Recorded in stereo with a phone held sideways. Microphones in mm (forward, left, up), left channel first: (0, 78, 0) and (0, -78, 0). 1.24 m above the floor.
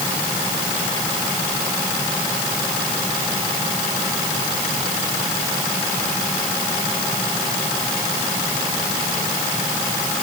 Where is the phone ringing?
No phone ringing in this recording.